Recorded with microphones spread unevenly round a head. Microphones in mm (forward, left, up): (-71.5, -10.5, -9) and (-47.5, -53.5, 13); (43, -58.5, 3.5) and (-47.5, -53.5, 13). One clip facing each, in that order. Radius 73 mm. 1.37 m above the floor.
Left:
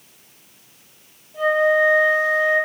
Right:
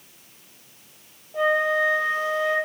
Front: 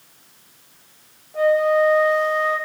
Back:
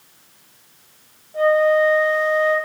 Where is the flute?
95° right, 4 m.